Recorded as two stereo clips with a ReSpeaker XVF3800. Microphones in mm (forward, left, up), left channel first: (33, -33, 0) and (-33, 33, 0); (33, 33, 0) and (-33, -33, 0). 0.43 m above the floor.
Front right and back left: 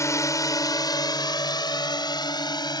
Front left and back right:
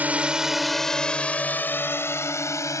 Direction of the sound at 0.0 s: 75° right.